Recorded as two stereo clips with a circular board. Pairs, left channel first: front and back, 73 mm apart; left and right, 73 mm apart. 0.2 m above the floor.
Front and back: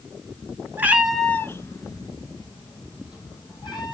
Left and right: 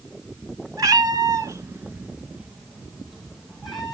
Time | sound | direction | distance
0.8 | a cat meowing | 120° right | 1.1 m